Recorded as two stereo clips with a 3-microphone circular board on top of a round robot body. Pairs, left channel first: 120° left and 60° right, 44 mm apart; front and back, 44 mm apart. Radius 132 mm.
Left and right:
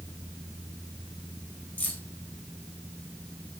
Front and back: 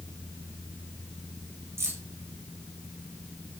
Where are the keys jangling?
175° left, 3.5 m.